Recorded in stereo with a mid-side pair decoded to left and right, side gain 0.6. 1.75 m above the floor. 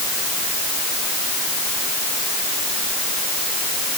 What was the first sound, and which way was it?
Only background noise.